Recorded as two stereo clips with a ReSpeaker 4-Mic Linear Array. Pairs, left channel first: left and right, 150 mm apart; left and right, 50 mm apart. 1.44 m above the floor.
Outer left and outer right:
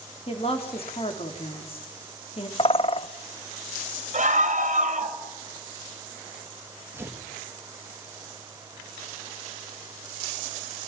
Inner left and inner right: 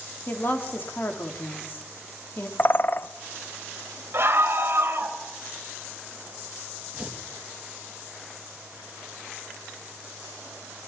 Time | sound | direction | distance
0.3 | a woman speaking | 40° left (ahead or behind) | 3 m
2.6 | a bird | 40° left (ahead or behind) | 0.6 m
4.1 | a scream | 50° right (ahead or behind) | 2.5 m
6.9 | tearing paper | 15° right (ahead or behind) | 3 m